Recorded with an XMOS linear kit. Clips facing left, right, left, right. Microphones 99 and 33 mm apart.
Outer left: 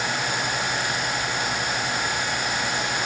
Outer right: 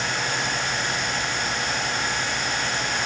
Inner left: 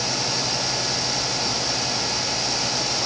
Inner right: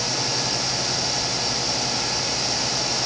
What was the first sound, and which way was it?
Only background noise.